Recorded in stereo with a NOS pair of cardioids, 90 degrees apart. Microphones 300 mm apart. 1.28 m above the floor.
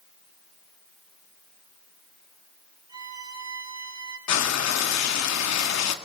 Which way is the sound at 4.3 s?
60° left.